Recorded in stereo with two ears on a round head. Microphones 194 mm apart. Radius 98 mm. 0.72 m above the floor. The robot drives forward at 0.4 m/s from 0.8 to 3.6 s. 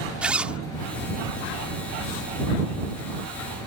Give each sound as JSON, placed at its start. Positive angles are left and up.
{"t": 0.2, "sound": "a zipper", "side_deg": -5}